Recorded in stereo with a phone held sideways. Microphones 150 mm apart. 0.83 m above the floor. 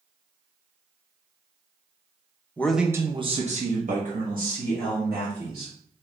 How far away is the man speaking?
About 0.6 m.